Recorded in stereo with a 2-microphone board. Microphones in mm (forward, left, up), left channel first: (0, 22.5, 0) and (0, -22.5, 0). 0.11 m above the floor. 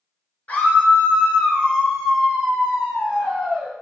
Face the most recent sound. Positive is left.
turn(degrees=-20)  # may be behind; listen again after turning